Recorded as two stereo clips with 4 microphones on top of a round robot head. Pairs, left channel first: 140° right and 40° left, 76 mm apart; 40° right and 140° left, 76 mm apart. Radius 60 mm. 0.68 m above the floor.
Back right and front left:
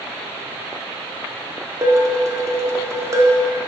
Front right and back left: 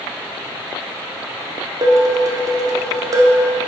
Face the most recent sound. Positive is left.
turn(degrees=95)